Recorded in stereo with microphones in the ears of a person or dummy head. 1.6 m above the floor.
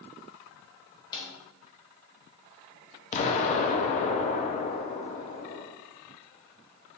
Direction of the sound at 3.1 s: 40° left (ahead or behind).